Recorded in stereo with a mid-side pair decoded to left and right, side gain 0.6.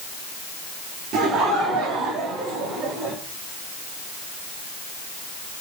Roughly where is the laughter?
Ahead right.